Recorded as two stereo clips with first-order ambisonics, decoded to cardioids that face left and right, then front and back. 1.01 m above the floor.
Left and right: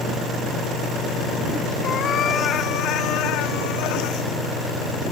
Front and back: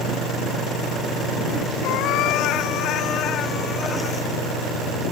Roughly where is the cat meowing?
Ahead left.